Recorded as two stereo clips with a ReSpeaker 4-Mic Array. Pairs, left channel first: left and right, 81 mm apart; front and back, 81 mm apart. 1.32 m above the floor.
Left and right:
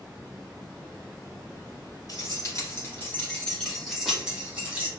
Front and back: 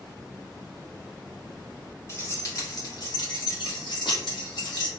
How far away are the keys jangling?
About 1.4 m.